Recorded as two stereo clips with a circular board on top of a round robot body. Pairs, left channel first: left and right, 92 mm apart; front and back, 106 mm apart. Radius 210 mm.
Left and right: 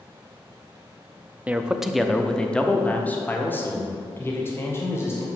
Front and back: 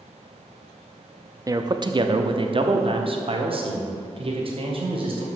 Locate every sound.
1.5 s a man speaking: 155° right, 0.9 m; by 5.3 s 150° left, 3 m